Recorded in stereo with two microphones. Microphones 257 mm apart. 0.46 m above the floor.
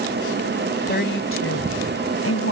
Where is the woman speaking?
40° left (ahead or behind); by 2.5 s 75° left (ahead or behind).